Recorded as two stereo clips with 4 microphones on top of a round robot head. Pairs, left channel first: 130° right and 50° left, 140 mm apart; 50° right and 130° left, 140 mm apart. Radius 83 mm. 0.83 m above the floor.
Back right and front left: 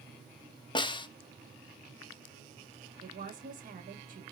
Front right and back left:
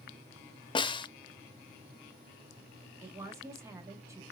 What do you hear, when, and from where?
0.8 s a snare drum: 90° right, 0.7 m
3.0 s a woman speaking: 60° left, 2 m